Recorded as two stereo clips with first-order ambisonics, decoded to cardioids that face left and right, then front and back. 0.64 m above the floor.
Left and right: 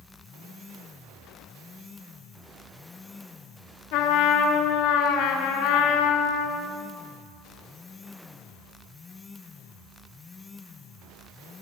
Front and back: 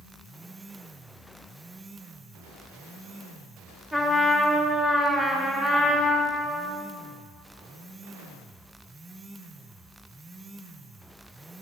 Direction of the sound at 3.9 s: 95° left.